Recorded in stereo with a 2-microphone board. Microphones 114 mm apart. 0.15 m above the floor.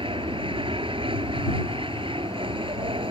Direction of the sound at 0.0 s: 45° right (ahead or behind).